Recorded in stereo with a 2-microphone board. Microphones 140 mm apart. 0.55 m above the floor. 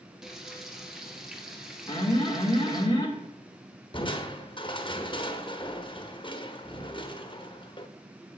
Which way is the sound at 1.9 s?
30° left (ahead or behind).